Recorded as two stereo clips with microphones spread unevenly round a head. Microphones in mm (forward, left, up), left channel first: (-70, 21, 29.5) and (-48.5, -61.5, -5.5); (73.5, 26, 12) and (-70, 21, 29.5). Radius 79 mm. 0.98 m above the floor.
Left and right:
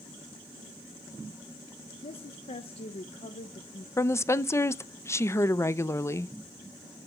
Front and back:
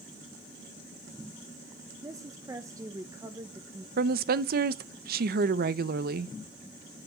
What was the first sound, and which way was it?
A woman speaking, 115° left.